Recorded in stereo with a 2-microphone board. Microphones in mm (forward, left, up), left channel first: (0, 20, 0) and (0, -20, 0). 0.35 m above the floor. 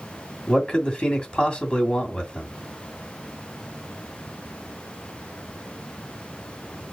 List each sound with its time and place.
0.5 s a man speaking: 25° left (ahead or behind), 2 m